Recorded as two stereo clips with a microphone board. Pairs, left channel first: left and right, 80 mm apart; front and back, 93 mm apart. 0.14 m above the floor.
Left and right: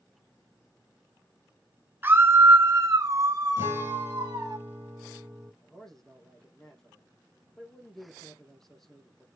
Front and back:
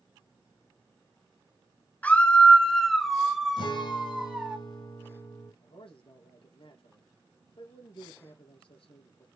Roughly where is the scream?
Ahead right.